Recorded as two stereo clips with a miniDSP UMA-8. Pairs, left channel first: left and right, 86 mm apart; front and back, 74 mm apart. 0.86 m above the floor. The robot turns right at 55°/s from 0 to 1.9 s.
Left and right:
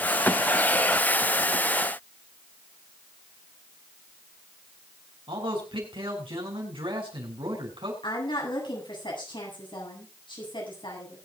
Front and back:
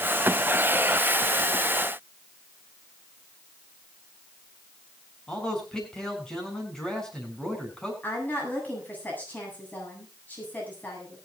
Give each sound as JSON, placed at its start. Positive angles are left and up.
{"t": 5.3, "sound": "a man speaking", "azimuth_deg": -80, "distance_m": 7.5}
{"t": 8.0, "sound": "a woman speaking", "azimuth_deg": 65, "distance_m": 8.5}